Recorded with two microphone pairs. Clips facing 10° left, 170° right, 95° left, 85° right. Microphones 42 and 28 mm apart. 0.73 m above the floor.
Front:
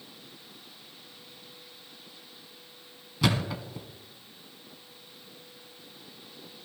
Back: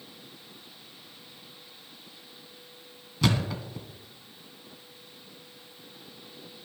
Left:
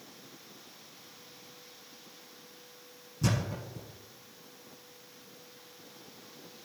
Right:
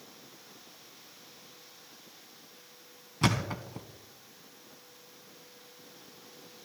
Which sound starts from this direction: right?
A thud, at 3.2 s.